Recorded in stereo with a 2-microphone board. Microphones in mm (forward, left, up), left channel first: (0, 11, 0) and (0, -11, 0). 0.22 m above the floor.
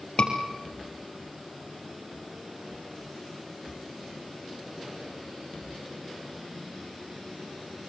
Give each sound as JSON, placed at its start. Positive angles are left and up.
{"t": 0.2, "sound": "a scream", "side_deg": 50, "distance_m": 4.5}